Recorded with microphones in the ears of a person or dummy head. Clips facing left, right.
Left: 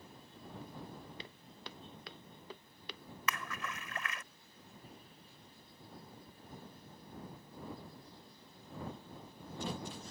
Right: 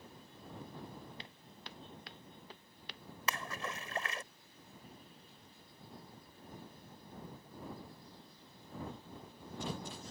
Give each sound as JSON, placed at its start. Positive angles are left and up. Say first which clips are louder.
{"t": 1.2, "sound": "footsteps", "louder": "left 2 dB", "side_deg": 80}
{"t": 3.3, "sound": "a splash", "louder": "right 1 dB", "side_deg": -25}